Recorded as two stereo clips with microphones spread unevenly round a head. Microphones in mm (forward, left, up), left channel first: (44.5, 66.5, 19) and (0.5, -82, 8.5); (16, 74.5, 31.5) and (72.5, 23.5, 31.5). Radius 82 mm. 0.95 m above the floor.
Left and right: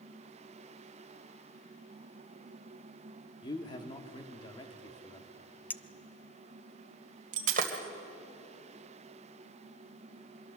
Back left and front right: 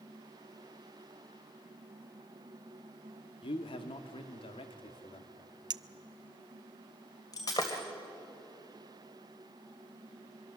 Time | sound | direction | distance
3.4 | a man speaking | 140° left | 1.7 m
5.7 | a clink | 5° right | 0.6 m
7.3 | breaking glass | 155° right | 2 m